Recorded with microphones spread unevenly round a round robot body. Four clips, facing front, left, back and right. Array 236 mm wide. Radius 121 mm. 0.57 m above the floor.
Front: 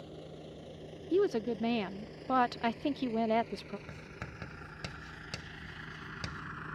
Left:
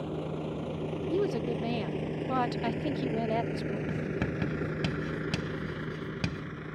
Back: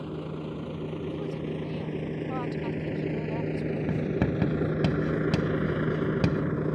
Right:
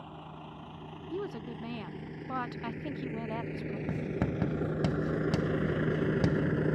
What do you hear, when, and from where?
0.0 s a vehicle: 145° left; by 6.8 s 140° right
1.1 s a woman speaking: 25° left
3.9 s writing: 175° right